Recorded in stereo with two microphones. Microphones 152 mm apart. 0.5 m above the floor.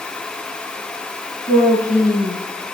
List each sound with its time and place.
1.5 s a woman speaking: 45° left (ahead or behind), 5.5 m